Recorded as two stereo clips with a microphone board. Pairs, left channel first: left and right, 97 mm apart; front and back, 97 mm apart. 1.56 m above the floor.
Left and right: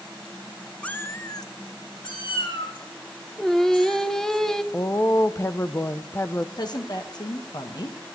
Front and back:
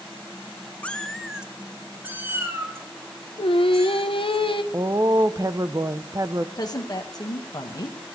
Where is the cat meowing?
40° left, 0.7 m; by 4.4 s 115° left, 3.5 m.